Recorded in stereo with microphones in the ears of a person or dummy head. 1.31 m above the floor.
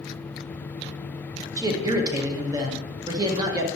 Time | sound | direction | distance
1.6 | a man speaking | 25° right (ahead or behind) | 1.2 m